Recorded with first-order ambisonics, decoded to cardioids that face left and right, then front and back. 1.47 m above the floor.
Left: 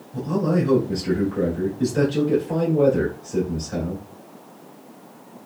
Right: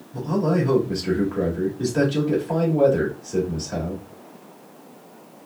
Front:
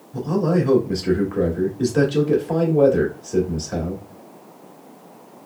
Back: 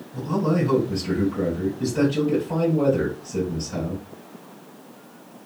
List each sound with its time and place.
0.1 s a man speaking: 15° right, 2 m